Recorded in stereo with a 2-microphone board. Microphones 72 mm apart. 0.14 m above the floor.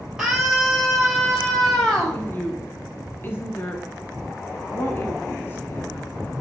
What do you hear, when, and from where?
0.2 s a scream: 10° right (ahead or behind), 4 m; by 2.2 s 15° left (ahead or behind), 5.5 m
2.1 s a woman speaking: 30° left (ahead or behind), 1.5 m